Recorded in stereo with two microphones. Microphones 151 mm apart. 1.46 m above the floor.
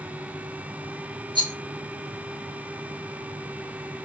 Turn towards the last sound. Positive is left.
turn(degrees=-30)  # may be behind; listen again after turning